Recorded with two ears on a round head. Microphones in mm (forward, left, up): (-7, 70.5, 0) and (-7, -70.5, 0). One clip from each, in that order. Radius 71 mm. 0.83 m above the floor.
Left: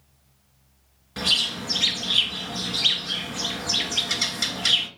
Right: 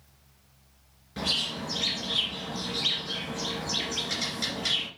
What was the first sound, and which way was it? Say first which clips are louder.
A bird: left 6 dB; 35° left (ahead or behind).